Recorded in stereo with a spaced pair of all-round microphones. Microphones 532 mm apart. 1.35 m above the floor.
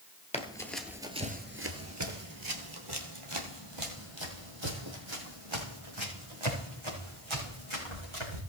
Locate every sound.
0.3 s running footsteps: 10° left (ahead or behind), 1.5 m; by 8.4 s 60° right (ahead or behind), 6 m